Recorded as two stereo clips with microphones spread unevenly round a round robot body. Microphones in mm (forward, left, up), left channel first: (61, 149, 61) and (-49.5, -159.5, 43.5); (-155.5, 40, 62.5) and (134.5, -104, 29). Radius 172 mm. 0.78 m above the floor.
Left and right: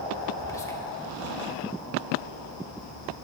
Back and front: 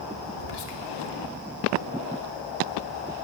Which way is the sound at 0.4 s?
150° left.